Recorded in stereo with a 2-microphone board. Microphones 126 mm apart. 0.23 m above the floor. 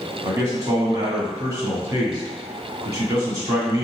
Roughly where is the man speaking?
Right.